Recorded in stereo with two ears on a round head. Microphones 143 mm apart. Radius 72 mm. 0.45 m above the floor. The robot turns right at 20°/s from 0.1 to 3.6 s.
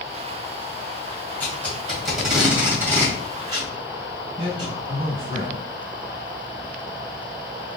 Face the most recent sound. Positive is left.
turn(degrees=-35)  # may be behind; listen again after turning